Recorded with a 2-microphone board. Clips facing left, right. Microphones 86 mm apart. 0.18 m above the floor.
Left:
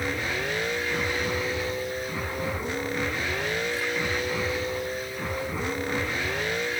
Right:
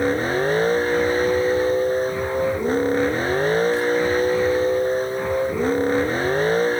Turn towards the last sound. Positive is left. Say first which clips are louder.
# right 10 dB
turn(degrees=-35)  # may be behind; listen again after turning